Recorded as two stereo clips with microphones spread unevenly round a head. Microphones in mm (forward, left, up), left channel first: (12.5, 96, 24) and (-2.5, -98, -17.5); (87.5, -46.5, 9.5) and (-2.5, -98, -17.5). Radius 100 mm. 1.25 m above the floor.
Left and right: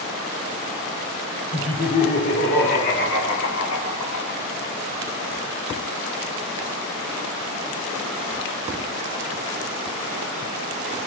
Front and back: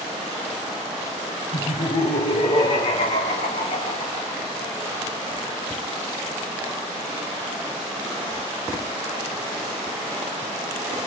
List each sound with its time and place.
1.5 s laughter: 30° left, 1.9 m; by 4.4 s 65° left, 3 m